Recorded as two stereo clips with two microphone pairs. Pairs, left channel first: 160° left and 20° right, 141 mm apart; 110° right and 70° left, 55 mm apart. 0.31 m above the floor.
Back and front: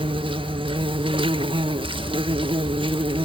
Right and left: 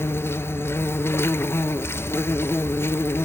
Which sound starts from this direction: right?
An insect, at 0.0 s.